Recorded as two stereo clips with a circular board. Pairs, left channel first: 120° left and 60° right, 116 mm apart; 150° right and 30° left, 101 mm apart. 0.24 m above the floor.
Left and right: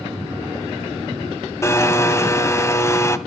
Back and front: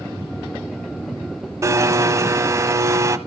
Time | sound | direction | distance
1.6 | a blender | 70° left | 1.2 m